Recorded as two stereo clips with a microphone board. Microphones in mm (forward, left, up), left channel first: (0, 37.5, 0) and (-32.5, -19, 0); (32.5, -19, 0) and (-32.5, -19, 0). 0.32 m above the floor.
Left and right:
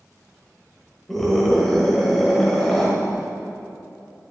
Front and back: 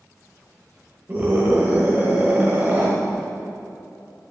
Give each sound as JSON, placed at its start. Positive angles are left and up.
{"t": 1.1, "sound": "a scream", "azimuth_deg": 145, "distance_m": 1.3}